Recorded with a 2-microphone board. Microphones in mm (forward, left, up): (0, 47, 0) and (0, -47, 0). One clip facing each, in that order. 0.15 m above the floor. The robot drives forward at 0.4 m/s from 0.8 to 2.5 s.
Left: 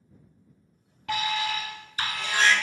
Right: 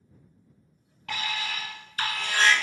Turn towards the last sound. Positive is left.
turn(degrees=15)  # may be behind; listen again after turning